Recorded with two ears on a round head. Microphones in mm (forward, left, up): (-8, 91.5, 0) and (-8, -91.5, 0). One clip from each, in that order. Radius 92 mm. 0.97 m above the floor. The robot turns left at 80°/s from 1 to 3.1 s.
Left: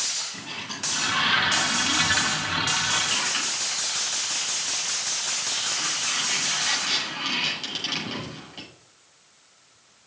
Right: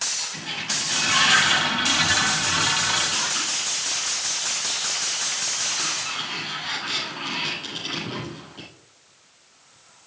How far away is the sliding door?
About 7 m.